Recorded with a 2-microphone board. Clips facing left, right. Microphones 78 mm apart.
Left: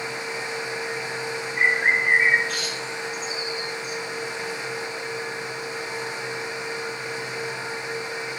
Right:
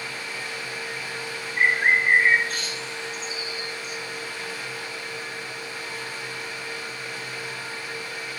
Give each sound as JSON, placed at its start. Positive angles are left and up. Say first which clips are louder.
{"t": 1.6, "sound": "a bird", "louder": "right 1 dB", "side_deg": -40, "distance_m": 2.0}